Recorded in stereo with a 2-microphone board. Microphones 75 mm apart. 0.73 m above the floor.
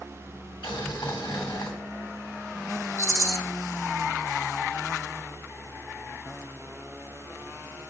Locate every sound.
0.6 s boiling: 85° left, 2.5 m
3.0 s a rattle: 45° right (ahead or behind), 0.8 m